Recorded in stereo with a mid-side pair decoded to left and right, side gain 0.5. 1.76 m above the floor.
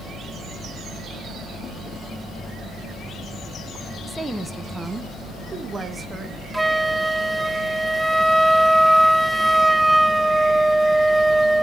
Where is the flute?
10° right, 0.6 m.